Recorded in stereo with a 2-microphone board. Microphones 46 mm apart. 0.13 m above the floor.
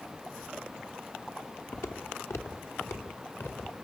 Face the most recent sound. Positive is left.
turn(degrees=70)  # may be behind; listen again after turning